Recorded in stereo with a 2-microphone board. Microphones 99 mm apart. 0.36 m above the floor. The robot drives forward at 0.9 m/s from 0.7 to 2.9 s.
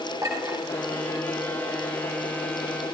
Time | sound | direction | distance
0.2 | a clink | 35° right (ahead or behind) | 4 m